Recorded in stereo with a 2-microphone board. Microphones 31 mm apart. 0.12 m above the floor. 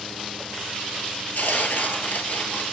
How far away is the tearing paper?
About 0.8 m.